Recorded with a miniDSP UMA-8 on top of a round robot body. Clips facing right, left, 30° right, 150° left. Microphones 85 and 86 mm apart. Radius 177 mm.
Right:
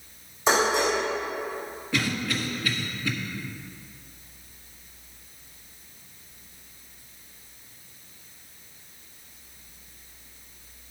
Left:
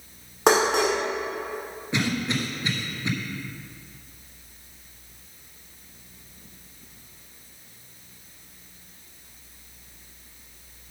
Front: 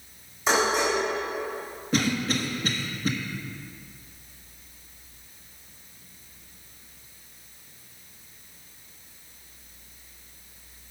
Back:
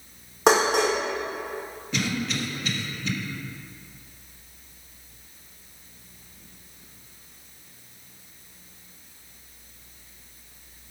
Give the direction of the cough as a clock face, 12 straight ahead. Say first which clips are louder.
Left 2 dB, front 3 dB; 11 o'clock.